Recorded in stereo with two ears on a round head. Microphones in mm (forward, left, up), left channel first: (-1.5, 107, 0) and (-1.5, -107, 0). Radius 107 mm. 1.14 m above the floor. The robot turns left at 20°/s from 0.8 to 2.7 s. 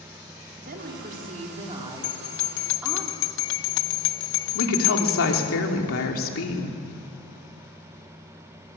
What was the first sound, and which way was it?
A woman speaking, 135° right.